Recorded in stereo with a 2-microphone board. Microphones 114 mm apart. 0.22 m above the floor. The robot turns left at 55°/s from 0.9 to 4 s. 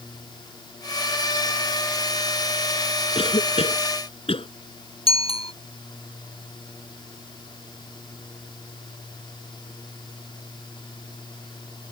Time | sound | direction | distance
3.1 | a cough | 55° left (ahead or behind) | ?
5.1 | a bicycle bell | 55° left (ahead or behind) | ?